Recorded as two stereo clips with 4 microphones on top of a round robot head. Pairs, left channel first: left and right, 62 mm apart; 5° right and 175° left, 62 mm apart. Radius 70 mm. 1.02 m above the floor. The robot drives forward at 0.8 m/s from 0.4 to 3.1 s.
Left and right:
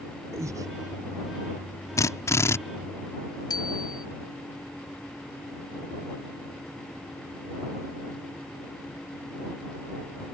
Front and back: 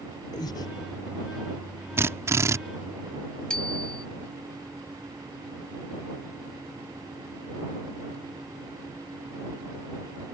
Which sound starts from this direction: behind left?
A drill, at 2.0 s.